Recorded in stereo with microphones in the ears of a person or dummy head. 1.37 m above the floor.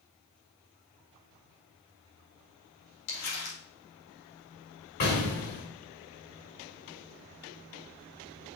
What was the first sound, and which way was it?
Crumpling, 85° left.